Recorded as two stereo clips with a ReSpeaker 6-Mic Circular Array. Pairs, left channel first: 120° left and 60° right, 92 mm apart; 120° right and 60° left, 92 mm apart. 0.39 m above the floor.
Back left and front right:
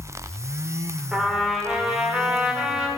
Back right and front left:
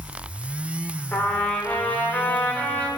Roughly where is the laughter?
No laughter in this recording.